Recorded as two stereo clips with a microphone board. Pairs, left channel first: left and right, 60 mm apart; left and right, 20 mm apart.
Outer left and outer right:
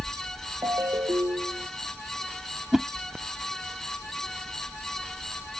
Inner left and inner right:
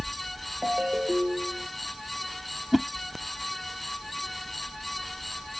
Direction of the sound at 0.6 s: 70° right (ahead or behind).